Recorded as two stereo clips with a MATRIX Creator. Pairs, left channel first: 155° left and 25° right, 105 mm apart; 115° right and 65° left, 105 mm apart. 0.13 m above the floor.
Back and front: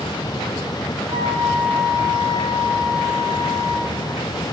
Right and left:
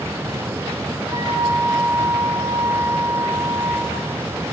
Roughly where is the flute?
Ahead.